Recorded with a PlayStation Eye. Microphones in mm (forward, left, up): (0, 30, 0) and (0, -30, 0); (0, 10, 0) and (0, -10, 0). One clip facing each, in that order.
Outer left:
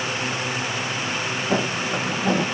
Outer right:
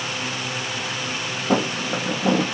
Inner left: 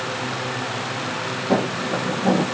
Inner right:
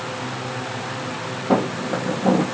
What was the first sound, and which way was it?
Footsteps, 60° right (ahead or behind).